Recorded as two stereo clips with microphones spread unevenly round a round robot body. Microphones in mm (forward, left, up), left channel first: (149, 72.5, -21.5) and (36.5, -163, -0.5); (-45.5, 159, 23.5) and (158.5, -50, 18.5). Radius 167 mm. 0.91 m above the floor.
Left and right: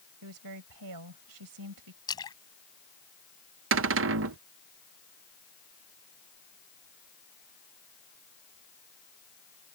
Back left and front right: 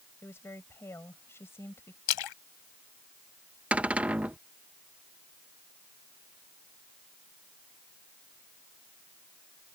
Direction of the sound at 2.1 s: 145° left.